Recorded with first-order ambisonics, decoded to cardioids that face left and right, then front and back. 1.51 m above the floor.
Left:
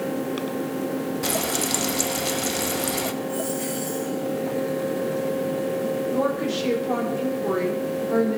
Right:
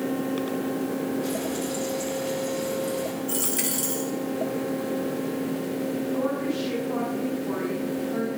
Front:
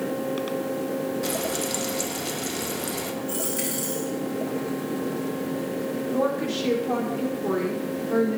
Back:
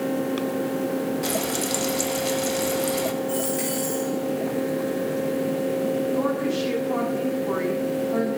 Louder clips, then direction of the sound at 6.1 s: Left 2 dB, back 1 dB; 55° left.